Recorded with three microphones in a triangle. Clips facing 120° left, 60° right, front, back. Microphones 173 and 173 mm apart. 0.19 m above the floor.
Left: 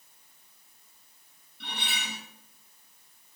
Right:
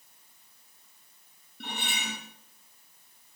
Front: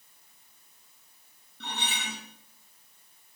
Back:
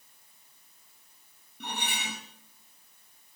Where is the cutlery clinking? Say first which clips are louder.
Right 2 dB, even; 105° right, 3.5 m.